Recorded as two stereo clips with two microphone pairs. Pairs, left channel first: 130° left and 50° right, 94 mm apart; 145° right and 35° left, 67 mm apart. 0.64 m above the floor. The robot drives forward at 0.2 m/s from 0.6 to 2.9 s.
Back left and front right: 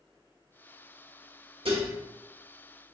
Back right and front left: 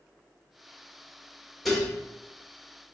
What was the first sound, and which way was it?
Dishes clattering, 55° right.